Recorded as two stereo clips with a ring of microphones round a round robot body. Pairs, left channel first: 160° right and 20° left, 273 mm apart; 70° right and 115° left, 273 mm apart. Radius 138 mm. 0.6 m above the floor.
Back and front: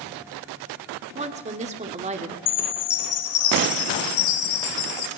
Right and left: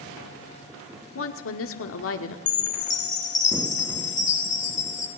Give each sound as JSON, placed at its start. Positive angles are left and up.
{"t": 1.1, "sound": "a woman speaking", "azimuth_deg": -40, "distance_m": 1.7}
{"t": 2.5, "sound": "a chime", "azimuth_deg": -135, "distance_m": 2.0}